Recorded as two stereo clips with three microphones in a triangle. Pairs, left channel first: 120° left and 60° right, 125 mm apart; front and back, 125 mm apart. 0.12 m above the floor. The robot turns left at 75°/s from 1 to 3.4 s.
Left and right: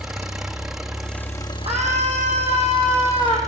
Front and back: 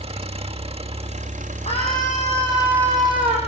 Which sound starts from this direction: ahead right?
A scream, at 1.7 s.